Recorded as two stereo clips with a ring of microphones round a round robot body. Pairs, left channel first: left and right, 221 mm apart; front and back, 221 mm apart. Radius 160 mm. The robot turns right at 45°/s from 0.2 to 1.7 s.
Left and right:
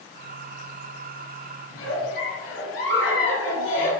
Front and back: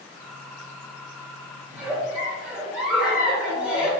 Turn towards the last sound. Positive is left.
turn(degrees=95)